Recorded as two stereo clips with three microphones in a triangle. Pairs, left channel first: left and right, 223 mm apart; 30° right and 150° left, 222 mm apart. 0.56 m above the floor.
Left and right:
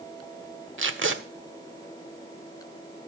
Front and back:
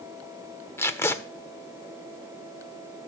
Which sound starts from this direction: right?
Tape being pulled, at 0.8 s.